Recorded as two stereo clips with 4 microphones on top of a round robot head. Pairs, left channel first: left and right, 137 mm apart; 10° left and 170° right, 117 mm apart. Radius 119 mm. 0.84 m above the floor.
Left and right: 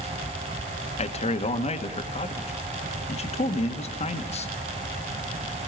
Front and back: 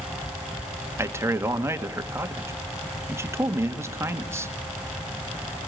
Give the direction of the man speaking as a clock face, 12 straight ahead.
8 o'clock.